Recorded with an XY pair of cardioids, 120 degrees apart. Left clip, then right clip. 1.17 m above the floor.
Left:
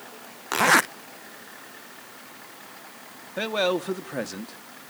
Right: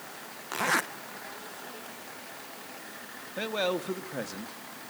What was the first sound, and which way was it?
A zipper, 50° left.